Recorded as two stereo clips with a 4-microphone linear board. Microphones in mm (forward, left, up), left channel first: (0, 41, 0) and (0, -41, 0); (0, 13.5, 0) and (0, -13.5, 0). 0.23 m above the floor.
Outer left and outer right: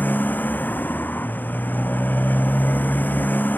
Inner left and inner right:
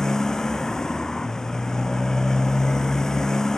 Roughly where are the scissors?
I don't hear scissors.